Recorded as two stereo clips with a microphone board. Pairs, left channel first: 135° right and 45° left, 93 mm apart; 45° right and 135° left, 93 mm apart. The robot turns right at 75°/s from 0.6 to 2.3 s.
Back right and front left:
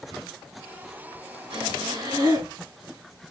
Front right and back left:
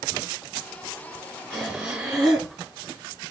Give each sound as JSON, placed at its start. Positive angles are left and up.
{"t": 1.5, "sound": "breathing", "azimuth_deg": 30, "distance_m": 2.0}